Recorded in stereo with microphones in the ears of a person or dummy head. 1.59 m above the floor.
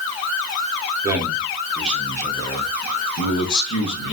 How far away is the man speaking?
About 1.4 m.